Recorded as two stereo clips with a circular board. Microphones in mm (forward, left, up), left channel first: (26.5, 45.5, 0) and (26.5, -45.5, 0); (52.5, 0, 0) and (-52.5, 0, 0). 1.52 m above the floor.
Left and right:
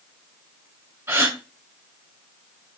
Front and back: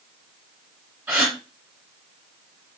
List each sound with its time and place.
1.1 s a gasp: 115° right, 1.4 m